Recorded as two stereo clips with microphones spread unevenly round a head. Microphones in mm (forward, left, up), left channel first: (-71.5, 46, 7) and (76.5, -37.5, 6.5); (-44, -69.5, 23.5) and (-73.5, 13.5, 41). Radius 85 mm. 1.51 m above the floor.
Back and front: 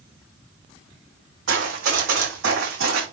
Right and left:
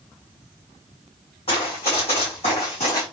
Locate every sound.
1.5 s running footsteps: 20° right, 5 m; by 3.0 s 30° right, 6 m